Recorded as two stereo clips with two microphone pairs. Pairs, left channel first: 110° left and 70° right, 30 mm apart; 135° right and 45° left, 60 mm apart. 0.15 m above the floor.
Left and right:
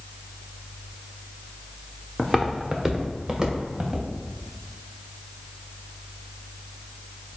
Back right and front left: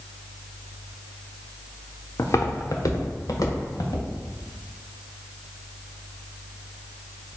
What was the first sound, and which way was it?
Footsteps, 165° right.